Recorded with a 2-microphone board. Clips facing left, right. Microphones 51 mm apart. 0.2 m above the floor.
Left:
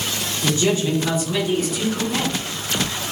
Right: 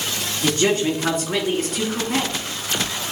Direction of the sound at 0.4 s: 55° right (ahead or behind).